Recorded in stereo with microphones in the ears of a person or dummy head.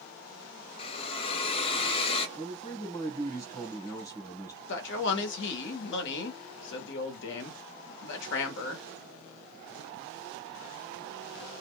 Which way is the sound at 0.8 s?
30° left (ahead or behind).